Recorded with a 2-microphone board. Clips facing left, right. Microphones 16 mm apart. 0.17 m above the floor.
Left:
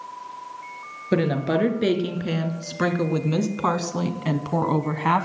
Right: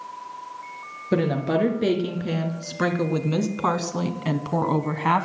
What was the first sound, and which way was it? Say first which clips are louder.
A woman speaking: even; 20° left (ahead or behind).